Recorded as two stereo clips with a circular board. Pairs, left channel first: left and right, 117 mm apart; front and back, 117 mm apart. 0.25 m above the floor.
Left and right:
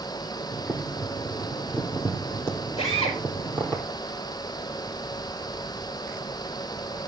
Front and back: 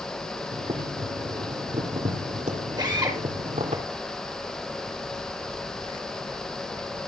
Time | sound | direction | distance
0.5 | boiling | 160° left | 3.5 m
2.8 | a drill | 125° left | 8 m